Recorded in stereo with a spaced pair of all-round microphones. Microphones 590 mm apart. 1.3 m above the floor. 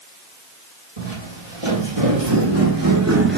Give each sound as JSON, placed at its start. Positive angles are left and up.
{"t": 1.0, "sound": "footsteps", "side_deg": -60, "distance_m": 3.0}